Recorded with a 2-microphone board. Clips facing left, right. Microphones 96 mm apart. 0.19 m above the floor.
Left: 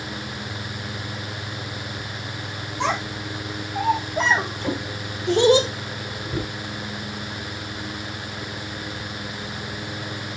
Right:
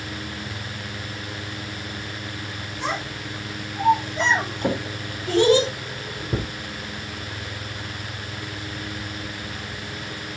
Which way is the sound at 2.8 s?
65° left (ahead or behind).